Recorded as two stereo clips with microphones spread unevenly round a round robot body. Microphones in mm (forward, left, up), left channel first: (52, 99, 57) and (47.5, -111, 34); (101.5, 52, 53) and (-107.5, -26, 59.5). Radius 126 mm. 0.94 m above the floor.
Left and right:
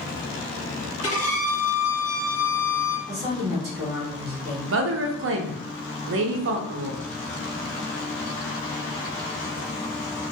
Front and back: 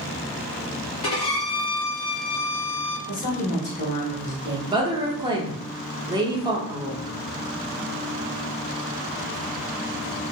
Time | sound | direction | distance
1.0 | a violin | 75° left | 0.8 m
3.1 | a woman speaking | 25° right | 1.1 m
4.7 | a woman speaking | 90° right | 0.6 m